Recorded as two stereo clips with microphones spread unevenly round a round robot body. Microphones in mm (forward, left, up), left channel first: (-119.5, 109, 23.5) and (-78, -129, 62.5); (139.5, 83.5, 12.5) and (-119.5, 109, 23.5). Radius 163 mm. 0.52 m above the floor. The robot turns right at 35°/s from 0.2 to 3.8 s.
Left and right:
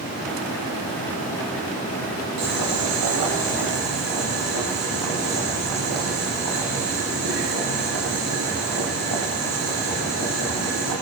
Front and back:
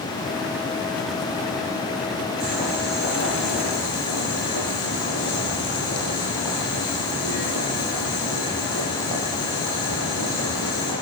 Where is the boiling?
85° right, 9 m; by 10.9 s 35° right, 9 m.